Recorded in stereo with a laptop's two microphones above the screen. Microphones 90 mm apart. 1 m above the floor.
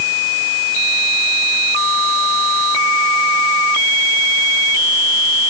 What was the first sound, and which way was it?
Only background noise.